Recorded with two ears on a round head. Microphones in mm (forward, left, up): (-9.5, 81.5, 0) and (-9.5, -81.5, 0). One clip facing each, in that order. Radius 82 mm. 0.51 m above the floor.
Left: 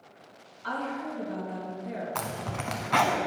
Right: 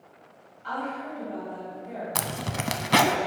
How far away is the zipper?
About 0.6 m.